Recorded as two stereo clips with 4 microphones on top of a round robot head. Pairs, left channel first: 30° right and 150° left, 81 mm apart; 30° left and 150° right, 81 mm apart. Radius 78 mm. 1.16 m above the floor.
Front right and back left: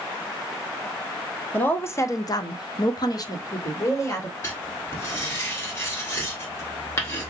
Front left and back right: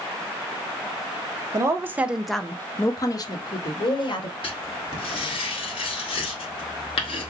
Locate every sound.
1.5 s a woman speaking: 100° right, 1.0 m; by 4.3 s 20° left, 1.8 m
4.4 s writing: 30° left, 1.6 m